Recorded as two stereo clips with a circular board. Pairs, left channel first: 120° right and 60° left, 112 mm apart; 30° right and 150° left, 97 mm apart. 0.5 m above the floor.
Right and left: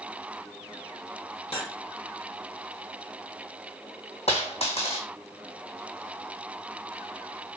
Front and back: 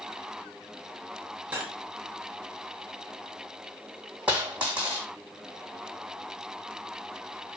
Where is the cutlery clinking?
140° right, 1.0 m.